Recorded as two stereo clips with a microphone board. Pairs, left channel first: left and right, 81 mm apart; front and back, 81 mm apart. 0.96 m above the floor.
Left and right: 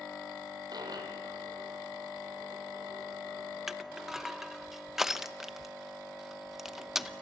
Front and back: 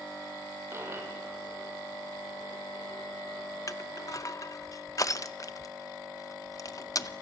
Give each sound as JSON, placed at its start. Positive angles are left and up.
{"t": 0.7, "sound": "a dropped coin", "azimuth_deg": -125, "distance_m": 3.0}
{"t": 3.7, "sound": "crushing", "azimuth_deg": -5, "distance_m": 0.8}